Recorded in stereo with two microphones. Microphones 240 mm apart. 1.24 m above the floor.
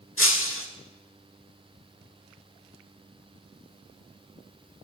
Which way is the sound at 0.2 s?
60° left (ahead or behind).